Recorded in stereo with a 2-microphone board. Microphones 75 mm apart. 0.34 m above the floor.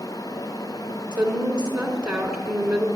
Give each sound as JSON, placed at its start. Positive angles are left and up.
{"t": 1.1, "sound": "a woman speaking", "side_deg": -10, "distance_m": 3.5}